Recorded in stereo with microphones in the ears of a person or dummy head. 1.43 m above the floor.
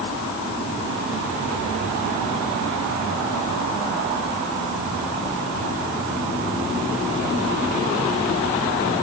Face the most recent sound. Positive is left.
No sound to turn to.